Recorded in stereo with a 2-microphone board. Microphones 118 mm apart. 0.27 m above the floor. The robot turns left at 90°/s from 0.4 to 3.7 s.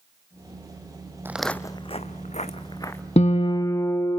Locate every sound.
1.2 s footsteps: 20° right (ahead or behind), 0.5 m; by 3.0 s 15° left (ahead or behind), 1.4 m
3.2 s a guitar: 75° left, 0.8 m; by 4.2 s 25° left, 0.8 m